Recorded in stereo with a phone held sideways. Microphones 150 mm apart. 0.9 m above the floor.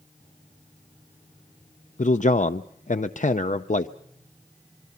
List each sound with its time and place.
2.0 s a man speaking: 55° left (ahead or behind), 0.5 m